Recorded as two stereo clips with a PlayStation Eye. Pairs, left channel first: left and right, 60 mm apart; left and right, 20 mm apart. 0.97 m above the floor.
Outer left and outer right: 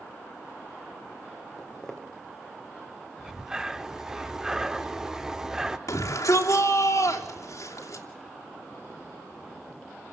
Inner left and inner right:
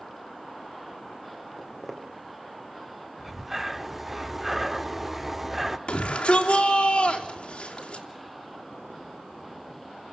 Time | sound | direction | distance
1.6 | footsteps | 10° left (ahead or behind) | 2.5 m
3.2 | breathing | 10° right (ahead or behind) | 0.9 m
5.9 | a shout | 70° left (ahead or behind) | 3 m